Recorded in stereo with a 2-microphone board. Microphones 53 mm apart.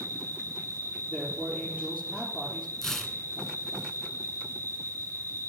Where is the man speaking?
35° left (ahead or behind), 3.5 m.